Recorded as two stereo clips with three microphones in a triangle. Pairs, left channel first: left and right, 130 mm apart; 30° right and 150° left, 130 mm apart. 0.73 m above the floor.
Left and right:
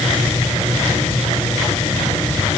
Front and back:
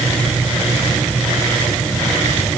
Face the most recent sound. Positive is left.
No sound to turn to.